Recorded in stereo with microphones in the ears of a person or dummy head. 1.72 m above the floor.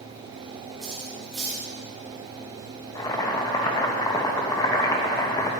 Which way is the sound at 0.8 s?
Centre (ahead or behind).